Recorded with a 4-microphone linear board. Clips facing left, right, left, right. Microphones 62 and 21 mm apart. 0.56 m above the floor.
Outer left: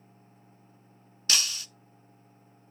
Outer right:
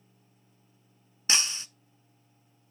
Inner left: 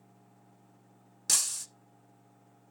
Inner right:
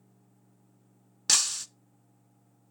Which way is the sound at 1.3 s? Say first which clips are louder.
Outer right 1 dB, inner right 5 dB; 25° right (ahead or behind).